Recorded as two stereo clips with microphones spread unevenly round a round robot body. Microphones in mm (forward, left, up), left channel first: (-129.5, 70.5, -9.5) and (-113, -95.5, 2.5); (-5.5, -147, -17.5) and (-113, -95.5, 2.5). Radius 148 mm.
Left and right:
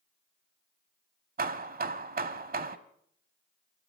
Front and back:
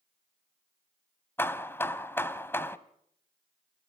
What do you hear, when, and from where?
1.4 s hammering: 100° right, 1.2 m